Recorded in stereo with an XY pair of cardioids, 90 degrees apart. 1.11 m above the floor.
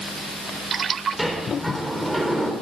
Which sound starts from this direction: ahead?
A sliding door, at 1.2 s.